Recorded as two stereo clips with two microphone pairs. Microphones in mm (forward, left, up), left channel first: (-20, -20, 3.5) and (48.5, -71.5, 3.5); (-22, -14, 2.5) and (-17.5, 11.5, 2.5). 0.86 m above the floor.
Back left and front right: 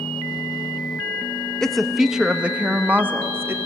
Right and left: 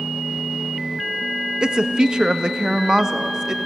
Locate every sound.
1.6 s a woman speaking: 60° left, 0.9 m; by 3.6 s 20° left, 1.6 m